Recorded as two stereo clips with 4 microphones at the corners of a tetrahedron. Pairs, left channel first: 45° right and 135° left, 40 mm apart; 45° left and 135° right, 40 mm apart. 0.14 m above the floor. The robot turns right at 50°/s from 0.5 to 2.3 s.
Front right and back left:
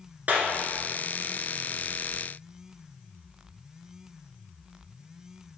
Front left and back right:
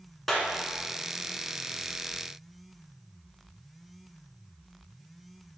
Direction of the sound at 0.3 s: 130° left.